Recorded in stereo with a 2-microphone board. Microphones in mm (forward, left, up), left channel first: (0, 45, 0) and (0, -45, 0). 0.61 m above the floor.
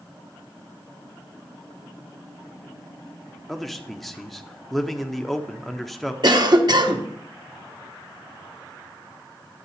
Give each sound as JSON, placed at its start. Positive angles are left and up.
{"t": 3.5, "sound": "a man speaking", "side_deg": 0, "distance_m": 0.8}
{"t": 6.2, "sound": "a cough", "side_deg": -55, "distance_m": 1.1}